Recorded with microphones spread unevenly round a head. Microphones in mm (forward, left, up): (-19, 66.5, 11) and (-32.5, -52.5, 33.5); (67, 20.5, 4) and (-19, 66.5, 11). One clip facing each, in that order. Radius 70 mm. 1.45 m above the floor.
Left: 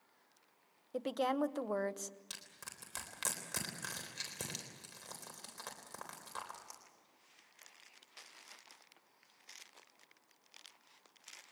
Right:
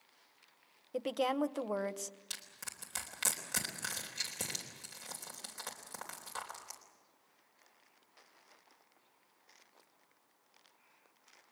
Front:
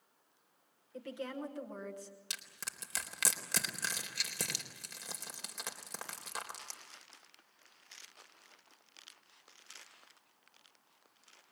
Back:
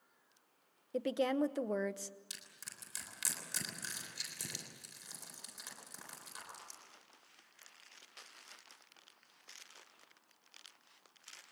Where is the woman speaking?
Straight behind, 0.9 m.